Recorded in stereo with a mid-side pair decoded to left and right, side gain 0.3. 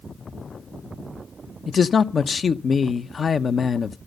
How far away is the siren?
I don't hear a siren.